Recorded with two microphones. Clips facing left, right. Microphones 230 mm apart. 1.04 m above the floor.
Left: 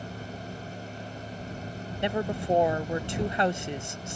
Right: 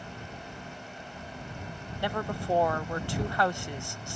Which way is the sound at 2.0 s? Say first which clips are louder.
Left 4 dB; 20° left (ahead or behind).